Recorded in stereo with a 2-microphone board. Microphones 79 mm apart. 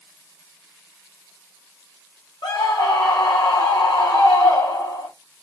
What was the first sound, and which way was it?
A scream, 70° left (ahead or behind).